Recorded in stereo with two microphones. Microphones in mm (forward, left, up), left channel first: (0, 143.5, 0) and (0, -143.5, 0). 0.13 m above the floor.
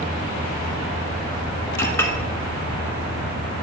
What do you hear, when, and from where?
1.8 s a clink: 10° left (ahead or behind), 0.8 m